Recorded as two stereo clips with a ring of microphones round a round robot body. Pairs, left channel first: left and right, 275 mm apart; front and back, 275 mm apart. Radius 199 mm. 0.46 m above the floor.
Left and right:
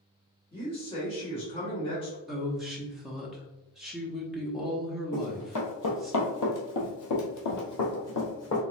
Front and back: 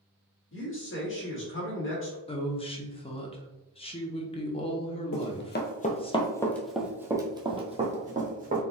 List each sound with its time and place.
0.5 s a man speaking: 25° left, 1.6 m
2.3 s a woman speaking: 5° right, 0.7 m
5.1 s running footsteps: 40° left, 1.1 m; by 8.6 s 120° left, 1.8 m